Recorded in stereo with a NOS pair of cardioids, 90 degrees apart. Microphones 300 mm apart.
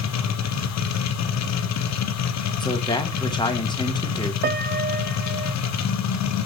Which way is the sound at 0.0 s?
60° left.